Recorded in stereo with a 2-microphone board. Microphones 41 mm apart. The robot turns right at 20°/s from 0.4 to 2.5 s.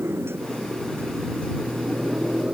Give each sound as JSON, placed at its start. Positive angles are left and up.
{"t": 0.0, "sound": "a motorcycle", "side_deg": -85}